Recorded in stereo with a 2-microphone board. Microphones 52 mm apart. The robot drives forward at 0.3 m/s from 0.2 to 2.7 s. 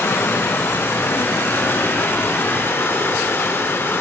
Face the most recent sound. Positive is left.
turn(degrees=55)  # may be behind; listen again after turning